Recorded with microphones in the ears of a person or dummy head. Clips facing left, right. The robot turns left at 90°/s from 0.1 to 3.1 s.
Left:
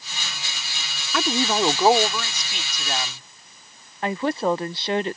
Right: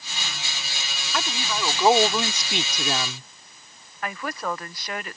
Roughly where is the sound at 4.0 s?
Left.